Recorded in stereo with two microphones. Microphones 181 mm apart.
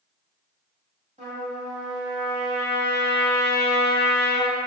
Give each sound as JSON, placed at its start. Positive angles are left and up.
{"t": 1.2, "sound": "a trumpet", "side_deg": -40, "distance_m": 1.5}